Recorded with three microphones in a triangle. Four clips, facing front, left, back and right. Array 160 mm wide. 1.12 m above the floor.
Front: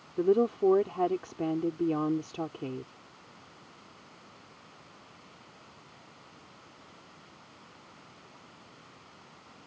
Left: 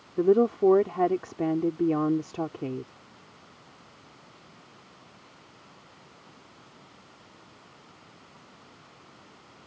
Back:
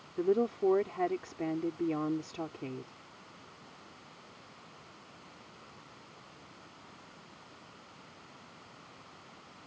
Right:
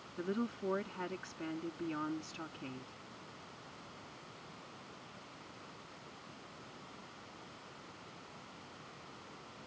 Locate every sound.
0.2 s a woman speaking: 70° left